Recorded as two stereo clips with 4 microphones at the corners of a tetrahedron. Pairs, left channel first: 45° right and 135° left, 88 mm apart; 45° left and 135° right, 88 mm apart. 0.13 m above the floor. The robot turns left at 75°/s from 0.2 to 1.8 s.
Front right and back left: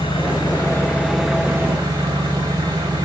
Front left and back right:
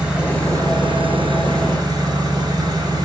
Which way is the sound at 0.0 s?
60° right.